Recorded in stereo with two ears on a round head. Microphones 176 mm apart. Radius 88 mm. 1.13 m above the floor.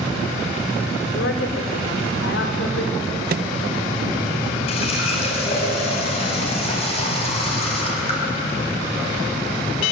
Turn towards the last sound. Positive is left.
turn(degrees=35)  # may be behind; listen again after turning